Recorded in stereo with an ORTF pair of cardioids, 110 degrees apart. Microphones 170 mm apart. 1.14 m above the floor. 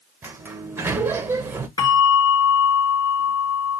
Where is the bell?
20° left, 1.1 m.